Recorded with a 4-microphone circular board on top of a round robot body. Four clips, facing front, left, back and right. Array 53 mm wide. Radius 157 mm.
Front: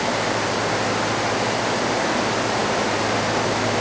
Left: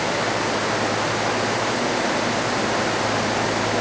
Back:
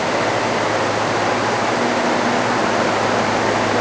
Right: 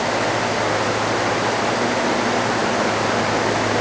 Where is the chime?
No chime in this recording.